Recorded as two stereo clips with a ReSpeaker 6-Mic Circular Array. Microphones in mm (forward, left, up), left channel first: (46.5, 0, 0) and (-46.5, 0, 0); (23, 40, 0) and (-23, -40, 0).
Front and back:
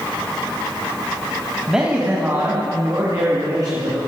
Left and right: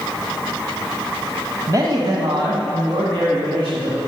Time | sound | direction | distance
1.7 | a man speaking | 95° right | 1.2 m